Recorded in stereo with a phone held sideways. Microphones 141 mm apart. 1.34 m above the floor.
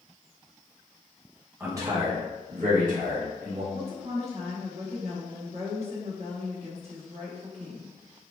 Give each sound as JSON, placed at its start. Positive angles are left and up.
{"t": 1.6, "sound": "a man speaking", "side_deg": -15, "distance_m": 1.4}
{"t": 3.7, "sound": "a woman speaking", "side_deg": -50, "distance_m": 1.4}